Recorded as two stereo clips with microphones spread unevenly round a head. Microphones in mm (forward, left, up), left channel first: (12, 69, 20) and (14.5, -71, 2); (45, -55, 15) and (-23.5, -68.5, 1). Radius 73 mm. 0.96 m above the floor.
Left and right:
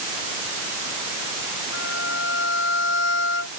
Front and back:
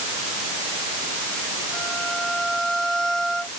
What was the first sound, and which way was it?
A violin, 100° left.